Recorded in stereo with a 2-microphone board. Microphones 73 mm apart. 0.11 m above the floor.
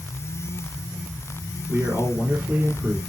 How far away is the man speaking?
About 1.9 m.